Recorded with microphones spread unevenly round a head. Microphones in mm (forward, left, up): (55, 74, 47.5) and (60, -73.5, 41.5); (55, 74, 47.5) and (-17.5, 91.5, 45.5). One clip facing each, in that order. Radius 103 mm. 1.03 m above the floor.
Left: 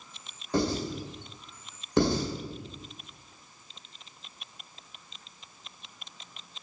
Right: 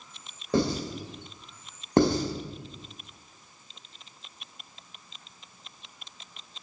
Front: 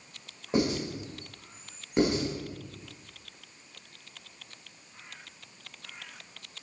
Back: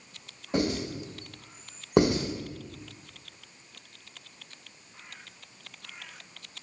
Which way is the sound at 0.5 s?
90° right.